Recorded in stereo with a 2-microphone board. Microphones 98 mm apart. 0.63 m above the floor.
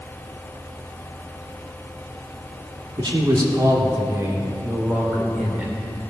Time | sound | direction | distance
3.0 | a man speaking | 50° right (ahead or behind) | 1.9 m